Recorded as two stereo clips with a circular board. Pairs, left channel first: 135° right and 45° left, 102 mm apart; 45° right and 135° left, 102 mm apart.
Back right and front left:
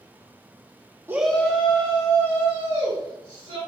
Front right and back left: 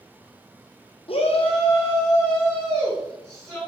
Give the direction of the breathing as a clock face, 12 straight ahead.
No breathing in this recording.